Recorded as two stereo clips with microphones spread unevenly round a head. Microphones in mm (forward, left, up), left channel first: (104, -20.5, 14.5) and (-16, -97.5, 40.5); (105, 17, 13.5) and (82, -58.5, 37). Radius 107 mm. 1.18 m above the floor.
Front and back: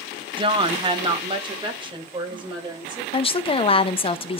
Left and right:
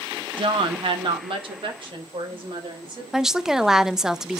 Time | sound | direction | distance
0.4 | a woman speaking | 90° right | 1.0 m
3.1 | a woman speaking | 15° right | 0.7 m